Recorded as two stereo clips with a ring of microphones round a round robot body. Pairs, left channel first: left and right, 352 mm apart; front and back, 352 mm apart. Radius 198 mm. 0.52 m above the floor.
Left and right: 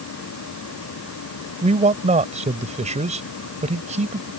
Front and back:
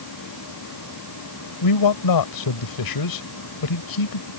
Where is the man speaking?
20° right.